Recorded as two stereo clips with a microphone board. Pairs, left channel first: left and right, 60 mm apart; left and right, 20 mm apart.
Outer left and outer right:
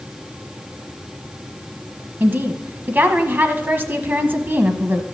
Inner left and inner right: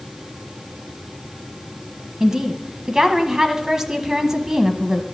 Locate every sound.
2.2 s a woman speaking: 35° right (ahead or behind), 1.1 m